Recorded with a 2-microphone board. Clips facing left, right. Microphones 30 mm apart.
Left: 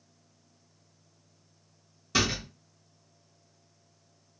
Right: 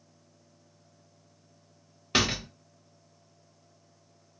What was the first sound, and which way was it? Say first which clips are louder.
A door slam: right 1 dB; 50° right (ahead or behind).